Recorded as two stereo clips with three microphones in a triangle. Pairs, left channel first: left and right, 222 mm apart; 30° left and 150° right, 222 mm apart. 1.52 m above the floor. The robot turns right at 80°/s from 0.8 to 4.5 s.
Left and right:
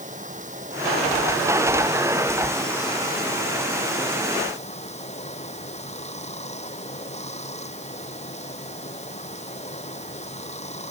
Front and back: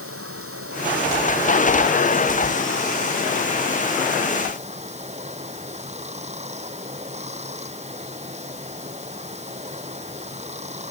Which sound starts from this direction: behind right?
Running water, at 0.0 s.